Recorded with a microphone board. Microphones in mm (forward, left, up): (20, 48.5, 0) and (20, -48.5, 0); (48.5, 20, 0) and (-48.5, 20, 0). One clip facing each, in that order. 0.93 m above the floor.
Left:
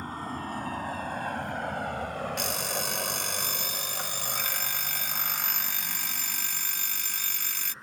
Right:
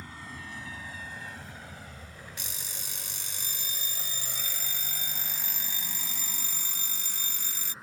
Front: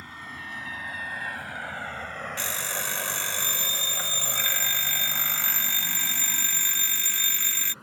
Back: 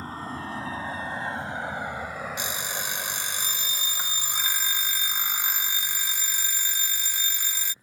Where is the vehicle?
130° left; by 7.8 s straight ahead.